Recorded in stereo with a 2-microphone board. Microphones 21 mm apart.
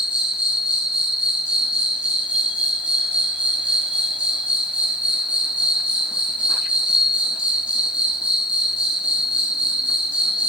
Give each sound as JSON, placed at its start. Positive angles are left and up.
{"t": 0.0, "sound": "an insect", "side_deg": -60, "distance_m": 0.8}